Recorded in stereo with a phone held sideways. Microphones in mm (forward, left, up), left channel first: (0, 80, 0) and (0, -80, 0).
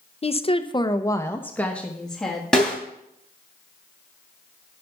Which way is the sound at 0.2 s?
40° left (ahead or behind).